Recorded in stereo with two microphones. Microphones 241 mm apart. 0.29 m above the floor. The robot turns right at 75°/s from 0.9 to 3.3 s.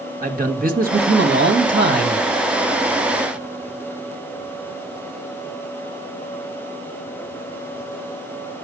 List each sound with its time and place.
0.2 s a man speaking: 130° right, 1.5 m; by 2.3 s 30° right, 1.5 m